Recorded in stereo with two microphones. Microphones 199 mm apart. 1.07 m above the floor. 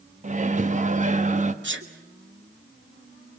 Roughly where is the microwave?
Right.